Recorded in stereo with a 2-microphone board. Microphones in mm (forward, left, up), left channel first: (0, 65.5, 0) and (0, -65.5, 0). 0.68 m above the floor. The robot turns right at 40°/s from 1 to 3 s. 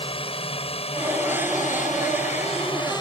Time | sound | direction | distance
0.0 | a drone | 45° left (ahead or behind) | ?